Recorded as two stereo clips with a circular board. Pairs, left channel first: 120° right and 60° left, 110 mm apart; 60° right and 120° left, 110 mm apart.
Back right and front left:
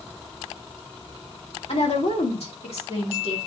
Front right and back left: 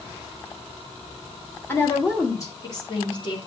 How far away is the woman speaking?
About 2 m.